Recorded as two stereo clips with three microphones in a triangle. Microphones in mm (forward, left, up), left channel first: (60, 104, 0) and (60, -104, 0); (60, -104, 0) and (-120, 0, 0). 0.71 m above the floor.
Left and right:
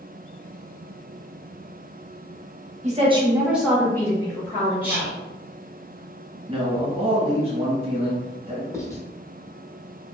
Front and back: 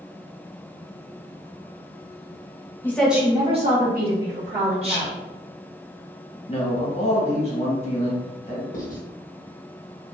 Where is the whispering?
170° right, 0.9 m.